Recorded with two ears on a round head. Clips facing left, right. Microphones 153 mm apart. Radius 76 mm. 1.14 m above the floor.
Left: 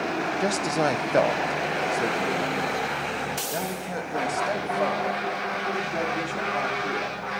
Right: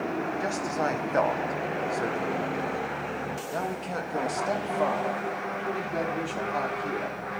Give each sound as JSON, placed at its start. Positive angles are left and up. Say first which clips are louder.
{"t": 0.4, "sound": "a man speaking", "louder": "left 7 dB", "side_deg": 45, "distance_m": 0.7}